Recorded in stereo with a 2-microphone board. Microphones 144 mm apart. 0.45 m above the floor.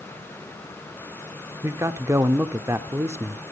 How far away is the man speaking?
About 0.7 m.